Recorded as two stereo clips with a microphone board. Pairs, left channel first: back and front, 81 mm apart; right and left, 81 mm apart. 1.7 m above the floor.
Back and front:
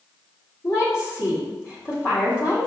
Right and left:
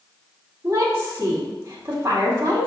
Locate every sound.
0.6 s a woman speaking: 145° left, 2.5 m